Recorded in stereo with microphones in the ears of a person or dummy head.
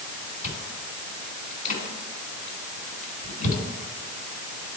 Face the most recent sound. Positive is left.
turn(degrees=55)  # may be behind; listen again after turning